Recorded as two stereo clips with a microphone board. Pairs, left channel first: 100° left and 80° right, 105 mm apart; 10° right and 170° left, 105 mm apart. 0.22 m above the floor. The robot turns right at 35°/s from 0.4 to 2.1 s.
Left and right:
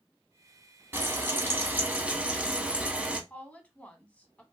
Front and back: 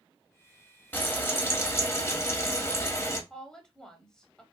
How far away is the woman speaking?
About 0.9 m.